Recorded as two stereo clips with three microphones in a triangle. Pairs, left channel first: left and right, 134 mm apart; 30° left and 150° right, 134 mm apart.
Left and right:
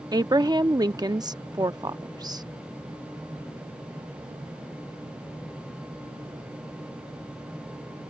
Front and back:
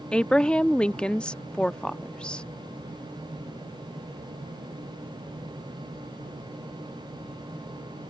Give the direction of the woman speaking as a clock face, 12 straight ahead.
2 o'clock.